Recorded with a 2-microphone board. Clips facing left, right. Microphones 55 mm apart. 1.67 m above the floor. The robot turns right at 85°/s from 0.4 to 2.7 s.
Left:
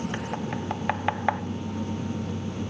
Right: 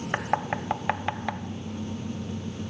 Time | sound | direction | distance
0.1 | knocking | 45° right (ahead or behind) | 0.8 m